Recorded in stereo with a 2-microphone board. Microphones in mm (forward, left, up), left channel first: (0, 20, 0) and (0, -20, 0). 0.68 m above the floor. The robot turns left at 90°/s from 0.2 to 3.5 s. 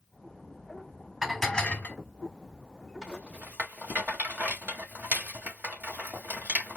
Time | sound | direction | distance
1.2 | dishes clattering | 175° right | 1.2 m
3.0 | a rattle | 10° right (ahead or behind) | 2.5 m